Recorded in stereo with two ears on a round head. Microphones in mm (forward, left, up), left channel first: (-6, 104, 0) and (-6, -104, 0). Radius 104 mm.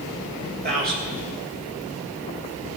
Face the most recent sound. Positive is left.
turn(degrees=-45)  # may be behind; listen again after turning